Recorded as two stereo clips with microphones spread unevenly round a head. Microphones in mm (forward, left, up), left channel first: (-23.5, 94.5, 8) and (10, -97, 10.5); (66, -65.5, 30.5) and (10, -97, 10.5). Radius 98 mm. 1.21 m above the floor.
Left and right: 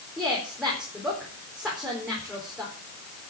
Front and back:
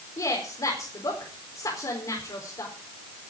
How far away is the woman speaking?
About 4.5 m.